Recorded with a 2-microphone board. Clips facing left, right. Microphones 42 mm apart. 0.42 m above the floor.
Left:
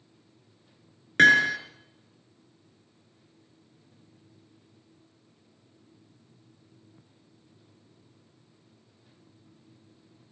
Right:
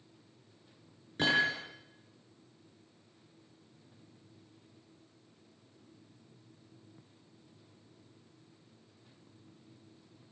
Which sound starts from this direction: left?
Hammering, at 1.2 s.